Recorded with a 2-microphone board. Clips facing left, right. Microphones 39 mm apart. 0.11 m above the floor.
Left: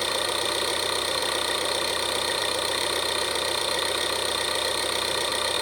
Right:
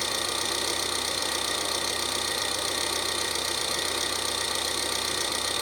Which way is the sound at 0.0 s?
25° left (ahead or behind).